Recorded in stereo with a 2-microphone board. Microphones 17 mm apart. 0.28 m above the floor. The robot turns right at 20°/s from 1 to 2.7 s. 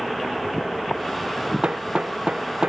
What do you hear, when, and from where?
1.6 s hammering: 80° right; by 2.7 s 55° right (ahead or behind)